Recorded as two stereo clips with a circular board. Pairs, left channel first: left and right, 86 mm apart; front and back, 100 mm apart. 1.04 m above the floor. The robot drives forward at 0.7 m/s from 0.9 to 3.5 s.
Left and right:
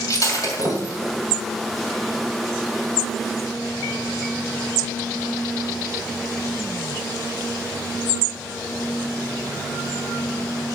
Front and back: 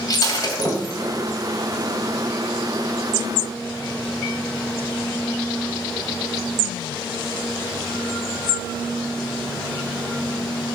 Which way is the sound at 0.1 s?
45° left.